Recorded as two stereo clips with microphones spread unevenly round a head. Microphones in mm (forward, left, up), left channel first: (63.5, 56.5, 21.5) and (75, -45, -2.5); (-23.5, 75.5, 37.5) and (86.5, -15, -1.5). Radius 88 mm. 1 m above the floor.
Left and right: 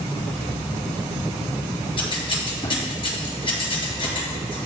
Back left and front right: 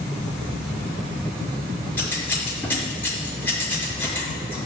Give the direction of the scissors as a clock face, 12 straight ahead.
10 o'clock.